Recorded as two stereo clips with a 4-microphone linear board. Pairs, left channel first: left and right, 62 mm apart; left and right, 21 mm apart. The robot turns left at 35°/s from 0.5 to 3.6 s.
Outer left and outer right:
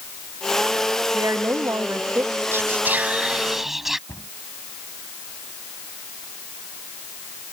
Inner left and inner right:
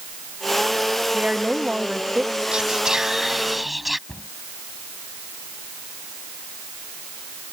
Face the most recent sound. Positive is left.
turn(degrees=50)  # may be behind; listen again after turning